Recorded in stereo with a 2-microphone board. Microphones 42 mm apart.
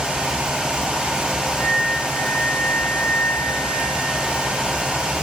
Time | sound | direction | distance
1.6 | a flute | 60° left (ahead or behind) | 3.5 m